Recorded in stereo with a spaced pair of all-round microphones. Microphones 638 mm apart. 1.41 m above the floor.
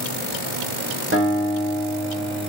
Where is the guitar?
20° right (ahead or behind), 5 m.